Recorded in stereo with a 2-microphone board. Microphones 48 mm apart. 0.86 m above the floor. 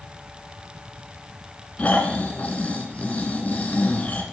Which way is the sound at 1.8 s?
35° left (ahead or behind).